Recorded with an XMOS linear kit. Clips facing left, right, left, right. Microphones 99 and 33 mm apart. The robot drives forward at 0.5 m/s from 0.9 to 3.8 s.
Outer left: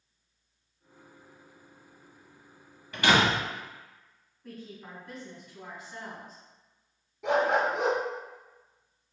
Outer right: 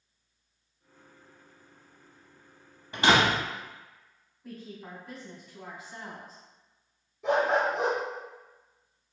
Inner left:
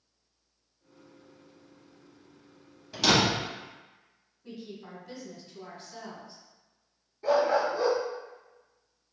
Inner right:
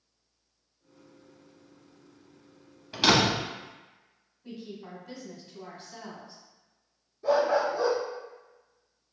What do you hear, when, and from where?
2.9 s a door slam: 25° right (ahead or behind), 0.7 m
4.4 s a woman speaking: 5° right (ahead or behind), 1.5 m
7.2 s a dog barking: 75° left (ahead or behind), 1.1 m